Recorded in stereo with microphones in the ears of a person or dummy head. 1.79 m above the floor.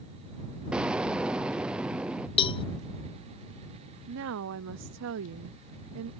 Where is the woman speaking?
70° right (ahead or behind).